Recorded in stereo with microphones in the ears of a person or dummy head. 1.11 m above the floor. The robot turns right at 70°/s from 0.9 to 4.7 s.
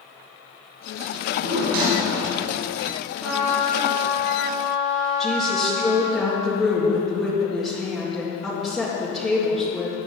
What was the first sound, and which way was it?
A drawer, 100° right.